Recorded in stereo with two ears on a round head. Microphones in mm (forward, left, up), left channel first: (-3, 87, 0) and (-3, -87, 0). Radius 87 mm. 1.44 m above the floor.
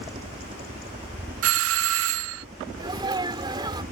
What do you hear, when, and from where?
0.0 s a helicopter: 30° right (ahead or behind); by 3.9 s 35° right (ahead or behind)
1.4 s a doorbell: 70° right (ahead or behind)
2.8 s a sneeze: 20° right (ahead or behind)